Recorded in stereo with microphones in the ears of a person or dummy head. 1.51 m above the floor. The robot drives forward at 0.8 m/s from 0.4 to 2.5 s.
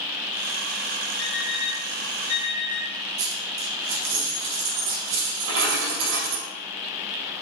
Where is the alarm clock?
75° left (ahead or behind), 3 m; by 2.9 s 60° left (ahead or behind), 3.5 m.